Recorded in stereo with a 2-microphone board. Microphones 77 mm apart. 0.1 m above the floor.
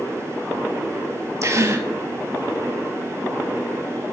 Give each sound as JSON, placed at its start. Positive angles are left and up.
{"t": 1.4, "sound": "a gasp", "side_deg": -40, "distance_m": 0.5}